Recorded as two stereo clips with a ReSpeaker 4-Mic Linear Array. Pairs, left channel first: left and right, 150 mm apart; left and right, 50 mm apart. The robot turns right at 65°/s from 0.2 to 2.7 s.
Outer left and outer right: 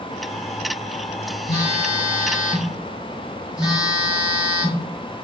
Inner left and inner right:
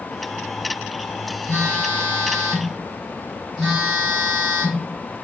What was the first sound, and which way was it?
A phone buzzing, 105° left.